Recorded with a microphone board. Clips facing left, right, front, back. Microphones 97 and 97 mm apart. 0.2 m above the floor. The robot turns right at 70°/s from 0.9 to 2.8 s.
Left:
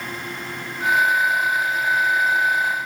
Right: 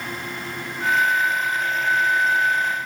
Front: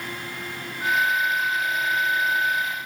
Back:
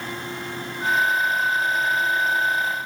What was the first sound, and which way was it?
Only background noise.